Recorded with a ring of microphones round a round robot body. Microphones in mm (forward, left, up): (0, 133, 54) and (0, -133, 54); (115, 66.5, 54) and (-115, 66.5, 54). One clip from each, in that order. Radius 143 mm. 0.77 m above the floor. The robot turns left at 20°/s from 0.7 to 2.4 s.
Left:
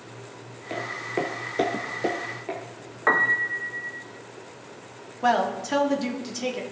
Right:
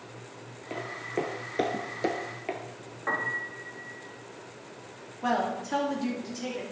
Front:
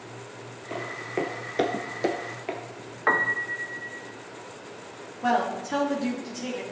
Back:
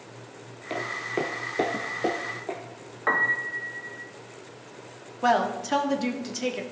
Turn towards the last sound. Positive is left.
turn(degrees=155)